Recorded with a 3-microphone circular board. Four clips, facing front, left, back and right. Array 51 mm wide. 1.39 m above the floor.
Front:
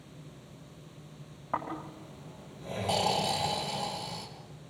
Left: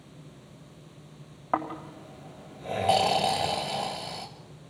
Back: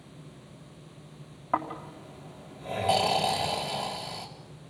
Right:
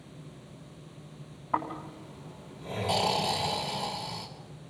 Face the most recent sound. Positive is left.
turn(degrees=105)